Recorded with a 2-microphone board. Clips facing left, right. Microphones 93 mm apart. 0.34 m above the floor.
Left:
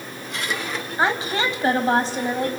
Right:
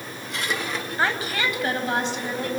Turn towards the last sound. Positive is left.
turn(degrees=45)  # may be behind; listen again after turning